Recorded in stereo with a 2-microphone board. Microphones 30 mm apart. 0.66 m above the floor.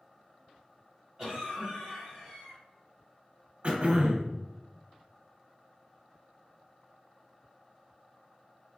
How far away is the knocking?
I don't hear knocking.